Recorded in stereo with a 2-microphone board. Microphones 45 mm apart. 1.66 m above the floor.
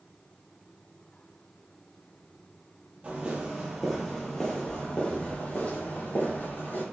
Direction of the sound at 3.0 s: 25° right (ahead or behind).